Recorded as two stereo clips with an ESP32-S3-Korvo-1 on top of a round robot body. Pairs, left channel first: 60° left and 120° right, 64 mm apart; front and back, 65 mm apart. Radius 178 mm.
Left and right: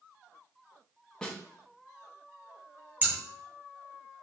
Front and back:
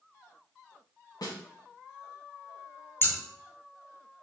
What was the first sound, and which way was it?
A snare drum, 20° right.